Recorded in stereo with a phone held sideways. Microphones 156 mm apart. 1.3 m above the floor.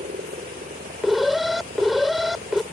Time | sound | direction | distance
0.0 | a helicopter | 75° right (ahead or behind) | ?
1.0 | an alarm | centre (ahead or behind) | ?